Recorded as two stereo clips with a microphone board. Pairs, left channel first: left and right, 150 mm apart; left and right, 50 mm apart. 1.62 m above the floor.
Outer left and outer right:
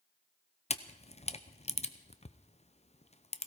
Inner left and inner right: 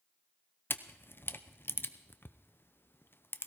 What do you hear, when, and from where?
0.7 s a camera shutter: 45° left (ahead or behind), 0.7 m